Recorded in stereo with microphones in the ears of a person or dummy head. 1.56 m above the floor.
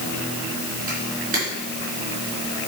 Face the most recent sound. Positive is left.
turn(degrees=-45)  # may be behind; listen again after turning